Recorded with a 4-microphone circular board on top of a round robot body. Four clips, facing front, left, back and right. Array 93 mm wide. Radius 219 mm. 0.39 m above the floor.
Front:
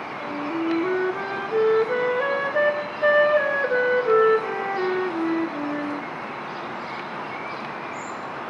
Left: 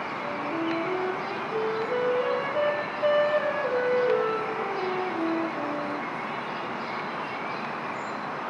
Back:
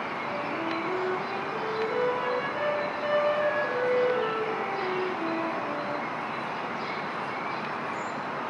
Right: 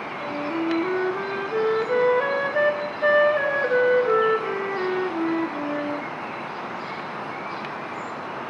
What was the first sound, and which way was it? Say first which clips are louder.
A flute: right 5 dB, front 8 dB; 35° right.